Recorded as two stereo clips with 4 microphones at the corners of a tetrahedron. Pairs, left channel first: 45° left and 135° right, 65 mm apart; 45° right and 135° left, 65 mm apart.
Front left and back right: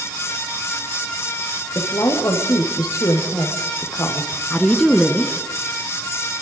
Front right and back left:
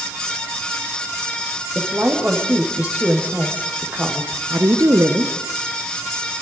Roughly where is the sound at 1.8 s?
Left.